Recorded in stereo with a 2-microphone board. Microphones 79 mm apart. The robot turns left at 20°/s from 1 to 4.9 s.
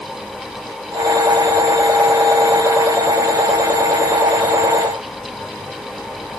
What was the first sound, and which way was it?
Only background noise.